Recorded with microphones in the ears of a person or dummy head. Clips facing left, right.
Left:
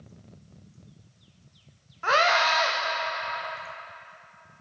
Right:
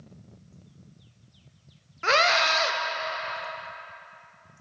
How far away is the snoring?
No snoring in this recording.